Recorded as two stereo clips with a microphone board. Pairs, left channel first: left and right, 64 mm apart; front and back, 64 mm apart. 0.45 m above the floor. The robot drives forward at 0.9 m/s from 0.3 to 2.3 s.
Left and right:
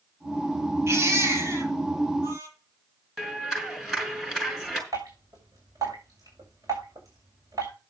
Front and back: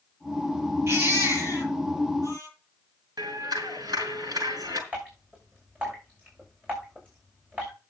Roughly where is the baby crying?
Behind right.